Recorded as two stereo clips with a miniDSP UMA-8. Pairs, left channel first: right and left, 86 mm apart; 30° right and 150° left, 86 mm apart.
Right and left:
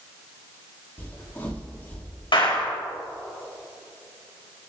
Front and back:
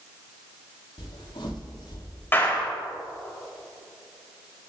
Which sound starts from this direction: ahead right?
Footsteps, at 1.0 s.